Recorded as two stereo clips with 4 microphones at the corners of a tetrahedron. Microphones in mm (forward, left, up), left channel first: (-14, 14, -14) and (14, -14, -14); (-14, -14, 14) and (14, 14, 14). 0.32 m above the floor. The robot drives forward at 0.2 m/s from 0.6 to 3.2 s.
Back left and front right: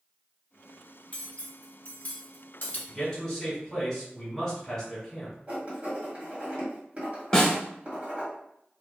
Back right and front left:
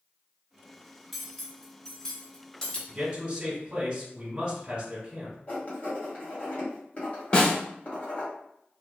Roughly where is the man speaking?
Ahead left.